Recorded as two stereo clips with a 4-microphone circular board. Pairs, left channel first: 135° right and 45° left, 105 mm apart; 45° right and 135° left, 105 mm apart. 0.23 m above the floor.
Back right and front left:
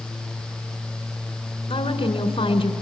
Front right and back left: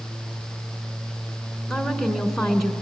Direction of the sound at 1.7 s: 135° right.